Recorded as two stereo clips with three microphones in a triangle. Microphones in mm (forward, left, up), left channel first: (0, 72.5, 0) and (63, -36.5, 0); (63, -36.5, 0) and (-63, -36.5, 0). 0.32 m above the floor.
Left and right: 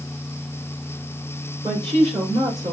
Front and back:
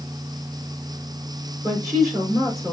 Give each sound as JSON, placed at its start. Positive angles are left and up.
{"t": 1.6, "sound": "a woman speaking", "azimuth_deg": -115, "distance_m": 3.5}